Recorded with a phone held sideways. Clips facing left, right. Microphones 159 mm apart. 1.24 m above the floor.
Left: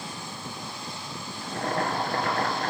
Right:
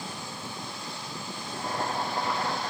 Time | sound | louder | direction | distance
1.4 | boiling | left 4 dB | 70° left (ahead or behind) | 3.5 m